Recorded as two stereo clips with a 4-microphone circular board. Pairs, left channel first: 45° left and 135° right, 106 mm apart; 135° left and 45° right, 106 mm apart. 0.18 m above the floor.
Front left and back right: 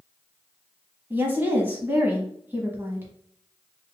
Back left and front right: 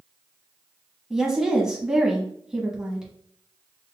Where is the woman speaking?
120° right, 1.1 m.